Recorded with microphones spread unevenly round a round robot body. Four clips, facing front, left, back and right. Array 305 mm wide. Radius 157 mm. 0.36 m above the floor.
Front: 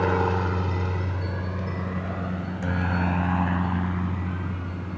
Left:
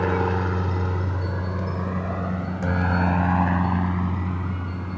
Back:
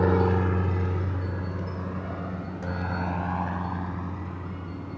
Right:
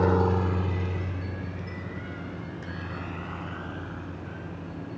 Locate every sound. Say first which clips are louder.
0.0 s a helicopter: even, even; 155° right; by 5.0 s 70° left